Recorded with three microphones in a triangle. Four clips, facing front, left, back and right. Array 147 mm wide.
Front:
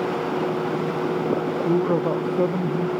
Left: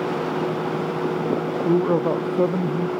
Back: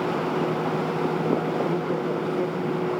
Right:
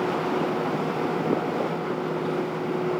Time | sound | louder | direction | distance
1.6 | a man speaking | left 9 dB, front 5 dB | 65° left | ?